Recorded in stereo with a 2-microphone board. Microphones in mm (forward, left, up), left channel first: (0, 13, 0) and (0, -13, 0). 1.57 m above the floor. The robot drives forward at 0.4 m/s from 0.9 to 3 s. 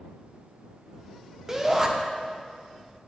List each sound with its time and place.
1.5 s a shout: 15° right (ahead or behind), 0.7 m; by 1.9 s 20° right (ahead or behind), 0.6 m